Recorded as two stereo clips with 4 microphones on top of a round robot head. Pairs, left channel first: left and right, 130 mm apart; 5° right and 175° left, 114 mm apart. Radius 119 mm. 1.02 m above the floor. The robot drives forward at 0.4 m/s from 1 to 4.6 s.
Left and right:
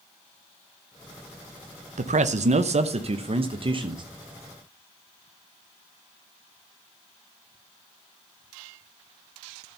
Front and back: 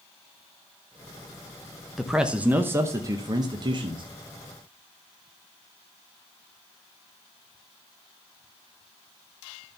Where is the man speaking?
95° right, 0.8 m; by 4.0 s 140° right, 1.2 m.